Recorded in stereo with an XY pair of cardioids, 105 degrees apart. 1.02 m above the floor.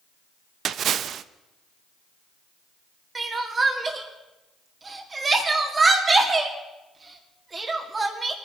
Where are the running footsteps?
No running footsteps in this recording.